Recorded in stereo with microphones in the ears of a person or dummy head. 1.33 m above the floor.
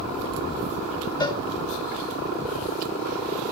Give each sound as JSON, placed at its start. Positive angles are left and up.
{"t": 1.2, "sound": "a cowbell", "side_deg": 20, "distance_m": 1.0}